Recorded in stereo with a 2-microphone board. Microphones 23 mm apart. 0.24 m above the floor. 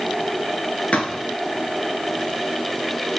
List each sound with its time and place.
0.9 s a thud: 70° left (ahead or behind), 1.7 m